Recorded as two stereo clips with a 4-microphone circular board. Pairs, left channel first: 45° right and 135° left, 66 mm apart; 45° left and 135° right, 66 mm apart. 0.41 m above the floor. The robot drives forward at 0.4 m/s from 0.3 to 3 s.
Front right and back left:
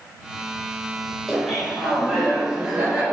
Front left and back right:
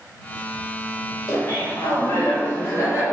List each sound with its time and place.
1.3 s laughter: 40° left, 1.9 m; by 3.0 s 65° left, 1.6 m